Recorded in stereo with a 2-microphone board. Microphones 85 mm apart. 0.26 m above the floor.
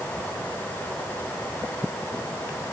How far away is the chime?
I don't hear a chime.